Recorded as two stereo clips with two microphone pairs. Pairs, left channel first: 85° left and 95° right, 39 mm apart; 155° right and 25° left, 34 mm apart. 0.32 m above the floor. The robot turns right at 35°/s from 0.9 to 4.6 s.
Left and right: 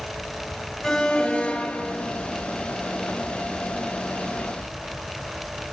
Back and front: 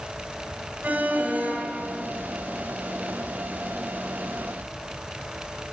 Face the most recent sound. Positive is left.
turn(degrees=140)